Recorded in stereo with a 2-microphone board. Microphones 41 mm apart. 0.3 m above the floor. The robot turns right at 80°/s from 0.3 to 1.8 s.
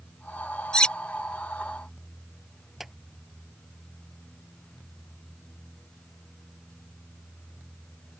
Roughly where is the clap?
Centre.